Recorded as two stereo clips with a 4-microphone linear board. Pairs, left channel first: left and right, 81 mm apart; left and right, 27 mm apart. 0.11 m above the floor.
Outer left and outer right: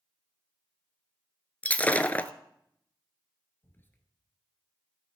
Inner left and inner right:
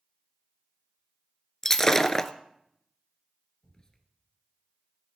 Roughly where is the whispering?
Left.